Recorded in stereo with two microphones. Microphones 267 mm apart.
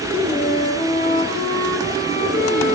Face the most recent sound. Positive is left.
turn(degrees=25)  # may be behind; listen again after turning